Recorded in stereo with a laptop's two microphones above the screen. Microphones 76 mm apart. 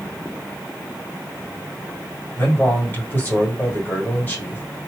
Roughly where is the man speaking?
Left.